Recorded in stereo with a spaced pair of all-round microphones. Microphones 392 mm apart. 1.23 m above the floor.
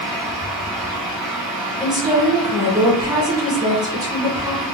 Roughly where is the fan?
Centre.